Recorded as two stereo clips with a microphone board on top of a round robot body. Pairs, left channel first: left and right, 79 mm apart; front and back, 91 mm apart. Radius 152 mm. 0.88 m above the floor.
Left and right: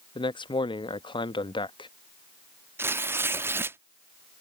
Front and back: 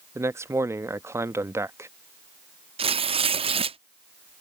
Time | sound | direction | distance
0.1 | a man speaking | 115° left | ?
2.8 | tearing paper | 155° right | ?